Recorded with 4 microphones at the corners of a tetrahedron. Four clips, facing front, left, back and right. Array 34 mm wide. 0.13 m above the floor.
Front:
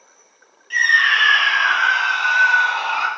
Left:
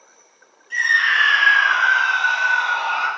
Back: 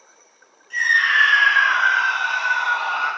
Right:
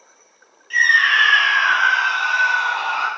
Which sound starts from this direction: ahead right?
A scream, at 0.7 s.